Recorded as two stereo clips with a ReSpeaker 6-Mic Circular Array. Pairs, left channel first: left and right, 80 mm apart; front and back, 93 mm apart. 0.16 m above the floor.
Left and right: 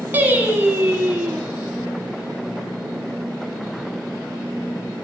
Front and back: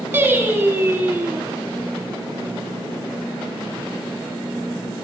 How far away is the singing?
About 1.2 m.